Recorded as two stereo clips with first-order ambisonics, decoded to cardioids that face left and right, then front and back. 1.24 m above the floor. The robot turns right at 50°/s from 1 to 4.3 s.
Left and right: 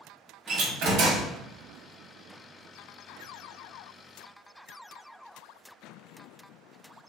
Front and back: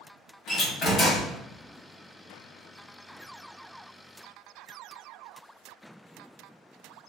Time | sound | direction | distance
0.5 | a door slam | 60° right | 1.2 m